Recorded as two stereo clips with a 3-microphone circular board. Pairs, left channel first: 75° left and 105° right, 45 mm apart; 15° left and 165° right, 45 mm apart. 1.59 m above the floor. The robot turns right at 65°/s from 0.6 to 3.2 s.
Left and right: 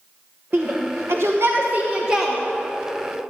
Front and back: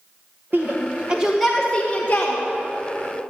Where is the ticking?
I don't hear ticking.